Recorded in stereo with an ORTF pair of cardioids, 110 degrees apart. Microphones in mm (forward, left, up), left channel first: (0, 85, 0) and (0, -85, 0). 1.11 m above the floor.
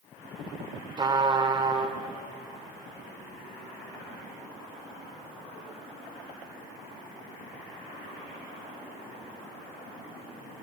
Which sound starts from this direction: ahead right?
A trumpet, at 1.0 s.